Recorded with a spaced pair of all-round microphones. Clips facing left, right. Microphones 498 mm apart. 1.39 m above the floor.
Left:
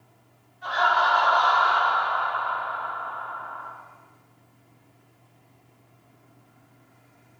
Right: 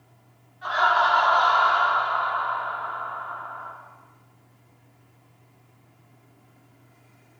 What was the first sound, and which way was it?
Laughter, 75° right (ahead or behind).